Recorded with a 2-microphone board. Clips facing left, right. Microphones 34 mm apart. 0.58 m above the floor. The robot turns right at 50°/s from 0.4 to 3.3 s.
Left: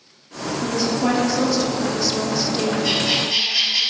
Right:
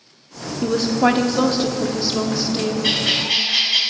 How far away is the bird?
About 2.5 m.